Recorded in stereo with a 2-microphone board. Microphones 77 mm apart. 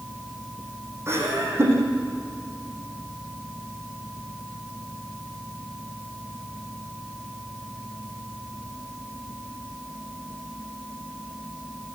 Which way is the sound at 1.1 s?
35° right (ahead or behind).